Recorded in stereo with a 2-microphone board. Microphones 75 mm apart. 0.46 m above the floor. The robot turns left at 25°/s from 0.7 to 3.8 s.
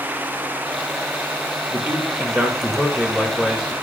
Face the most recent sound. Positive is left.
turn(degrees=170)